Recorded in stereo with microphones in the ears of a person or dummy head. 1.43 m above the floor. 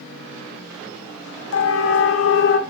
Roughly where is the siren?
Left.